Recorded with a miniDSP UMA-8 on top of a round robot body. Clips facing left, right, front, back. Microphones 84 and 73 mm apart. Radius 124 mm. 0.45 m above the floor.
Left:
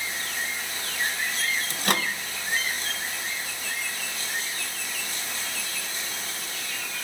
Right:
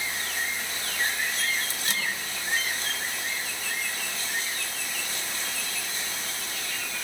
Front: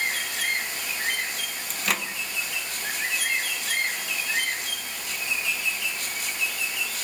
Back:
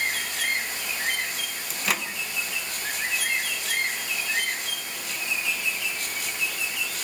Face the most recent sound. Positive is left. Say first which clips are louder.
# left 5 dB, even
turn(degrees=90)